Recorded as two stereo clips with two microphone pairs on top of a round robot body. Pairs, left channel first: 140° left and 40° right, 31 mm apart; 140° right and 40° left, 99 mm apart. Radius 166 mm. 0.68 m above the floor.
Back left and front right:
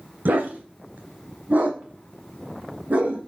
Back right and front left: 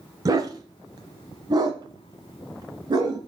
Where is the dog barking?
15° right, 0.6 m; by 3.2 s 10° right, 2.5 m.